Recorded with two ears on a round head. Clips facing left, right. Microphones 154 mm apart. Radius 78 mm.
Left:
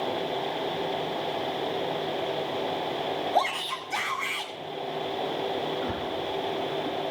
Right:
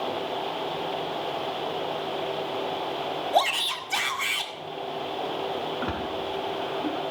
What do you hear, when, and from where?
3.3 s a shout: 40° right (ahead or behind), 2 m
5.8 s a splash: 75° right (ahead or behind), 4 m